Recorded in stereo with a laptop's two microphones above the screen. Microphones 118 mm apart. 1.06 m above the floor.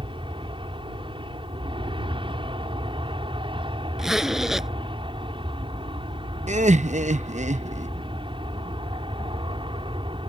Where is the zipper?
5° right (ahead or behind).